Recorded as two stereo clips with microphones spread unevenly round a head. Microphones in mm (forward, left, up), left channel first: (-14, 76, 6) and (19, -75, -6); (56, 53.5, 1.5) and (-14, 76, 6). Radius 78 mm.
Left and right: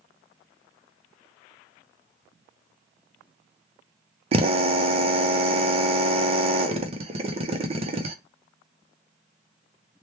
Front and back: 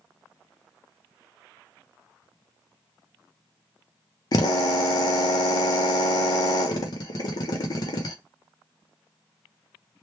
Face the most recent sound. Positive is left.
turn(degrees=-30)